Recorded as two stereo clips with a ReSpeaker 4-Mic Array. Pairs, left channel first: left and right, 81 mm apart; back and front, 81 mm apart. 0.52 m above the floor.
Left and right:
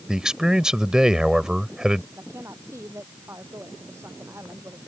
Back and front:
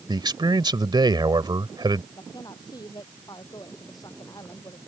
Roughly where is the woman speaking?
Behind right.